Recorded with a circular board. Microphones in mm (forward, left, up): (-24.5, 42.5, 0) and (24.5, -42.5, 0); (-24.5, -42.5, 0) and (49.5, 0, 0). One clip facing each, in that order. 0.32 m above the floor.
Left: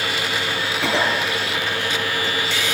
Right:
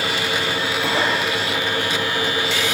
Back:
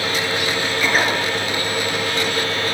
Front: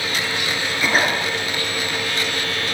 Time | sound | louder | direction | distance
0.8 | a cough | left 1 dB, even | 110° left | 5.5 m